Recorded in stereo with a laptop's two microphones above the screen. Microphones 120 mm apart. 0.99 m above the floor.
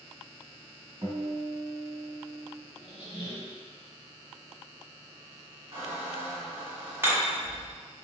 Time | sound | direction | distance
1.0 | a guitar | 30° right (ahead or behind) | 1.8 m
2.8 | a squeak | 40° left (ahead or behind) | 1.3 m
5.7 | a squeak | 20° right (ahead or behind) | 1.3 m
7.0 | hammering | 20° right (ahead or behind) | 1.7 m